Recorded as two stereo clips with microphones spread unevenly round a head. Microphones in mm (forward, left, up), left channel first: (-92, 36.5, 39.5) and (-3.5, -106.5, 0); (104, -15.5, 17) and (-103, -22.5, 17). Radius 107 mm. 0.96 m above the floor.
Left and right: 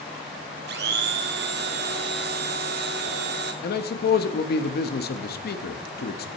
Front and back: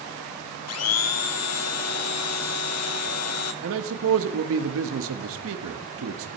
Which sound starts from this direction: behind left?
A man speaking, at 3.6 s.